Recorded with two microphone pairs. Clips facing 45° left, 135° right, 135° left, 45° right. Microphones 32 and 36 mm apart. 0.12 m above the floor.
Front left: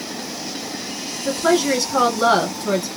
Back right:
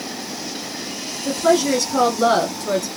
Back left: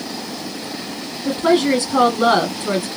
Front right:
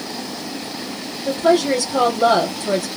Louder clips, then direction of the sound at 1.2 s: Back right 1 dB, even; 105° left.